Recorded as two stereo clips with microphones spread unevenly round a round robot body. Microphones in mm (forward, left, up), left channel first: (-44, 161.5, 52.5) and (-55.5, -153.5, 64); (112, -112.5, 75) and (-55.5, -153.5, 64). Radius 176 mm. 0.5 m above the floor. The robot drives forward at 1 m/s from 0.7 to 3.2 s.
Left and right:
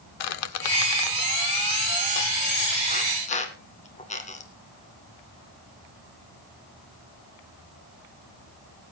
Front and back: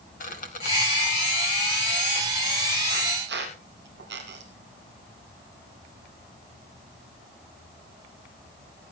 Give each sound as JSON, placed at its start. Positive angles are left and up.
{"t": 0.2, "sound": "a squeak", "azimuth_deg": 75, "distance_m": 1.0}